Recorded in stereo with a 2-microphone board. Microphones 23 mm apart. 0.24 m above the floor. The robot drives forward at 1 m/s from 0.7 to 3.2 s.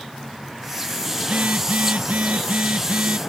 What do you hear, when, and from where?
1.2 s a phone buzzing: 80° right; by 3.2 s 70° right (ahead or behind)